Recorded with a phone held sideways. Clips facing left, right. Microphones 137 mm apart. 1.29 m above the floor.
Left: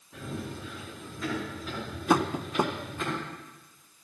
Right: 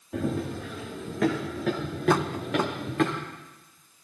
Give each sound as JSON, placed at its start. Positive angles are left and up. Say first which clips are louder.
{"t": 0.1, "sound": "running footsteps", "louder": "right 9 dB", "side_deg": -65, "distance_m": 5.0}
{"t": 2.1, "sound": "tapping", "louder": "even", "side_deg": 15, "distance_m": 0.7}